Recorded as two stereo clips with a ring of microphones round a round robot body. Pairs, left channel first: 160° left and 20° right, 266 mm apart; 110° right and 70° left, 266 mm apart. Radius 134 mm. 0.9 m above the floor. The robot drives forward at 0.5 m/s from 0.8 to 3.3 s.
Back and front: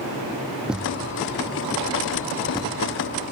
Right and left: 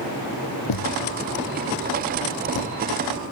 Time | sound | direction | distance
0.7 | a thud | 110° right | ?